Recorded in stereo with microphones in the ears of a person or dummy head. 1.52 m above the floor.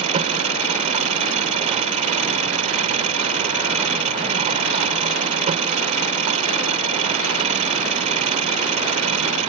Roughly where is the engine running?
Right.